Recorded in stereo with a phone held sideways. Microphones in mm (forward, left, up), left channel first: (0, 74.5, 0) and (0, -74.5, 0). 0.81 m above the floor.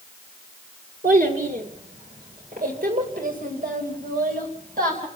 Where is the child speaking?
65° right (ahead or behind), 1.8 m; by 5.1 s 75° right (ahead or behind), 4 m.